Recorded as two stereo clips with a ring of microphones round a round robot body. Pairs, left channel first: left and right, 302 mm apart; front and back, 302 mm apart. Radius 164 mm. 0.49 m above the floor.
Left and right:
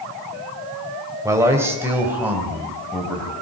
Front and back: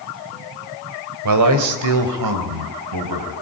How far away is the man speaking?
About 3 m.